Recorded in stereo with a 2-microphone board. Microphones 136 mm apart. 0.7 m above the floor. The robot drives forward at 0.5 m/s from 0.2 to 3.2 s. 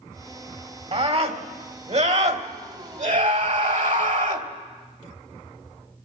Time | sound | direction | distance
0.9 | a scream | 50° right (ahead or behind) | 3 m